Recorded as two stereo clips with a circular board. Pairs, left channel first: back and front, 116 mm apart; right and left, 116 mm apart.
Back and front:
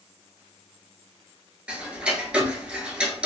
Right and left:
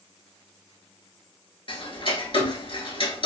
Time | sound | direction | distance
1.7 | ticking | 80° right | 0.7 m